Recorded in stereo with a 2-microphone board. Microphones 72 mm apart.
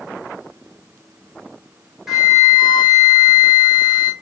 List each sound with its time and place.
2.1 s a flute: 5° right (ahead or behind), 1.1 m